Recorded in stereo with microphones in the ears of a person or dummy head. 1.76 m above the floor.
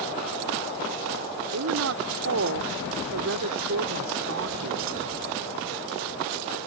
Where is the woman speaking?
65° right (ahead or behind).